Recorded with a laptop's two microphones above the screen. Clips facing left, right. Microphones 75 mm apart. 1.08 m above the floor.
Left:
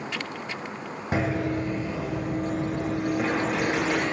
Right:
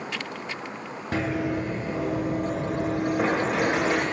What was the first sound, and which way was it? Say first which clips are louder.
Running footsteps: even; 15° left (ahead or behind).